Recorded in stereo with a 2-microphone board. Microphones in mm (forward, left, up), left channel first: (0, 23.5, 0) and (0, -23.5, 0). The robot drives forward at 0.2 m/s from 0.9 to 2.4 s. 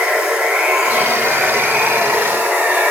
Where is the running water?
30° right (ahead or behind), 1.2 m; by 2.9 s 40° right (ahead or behind), 1.0 m.